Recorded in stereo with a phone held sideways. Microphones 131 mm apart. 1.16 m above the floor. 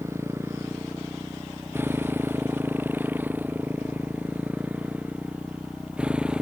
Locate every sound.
0.0 s a motorcycle: 20° right (ahead or behind); by 6.4 s 5° right (ahead or behind)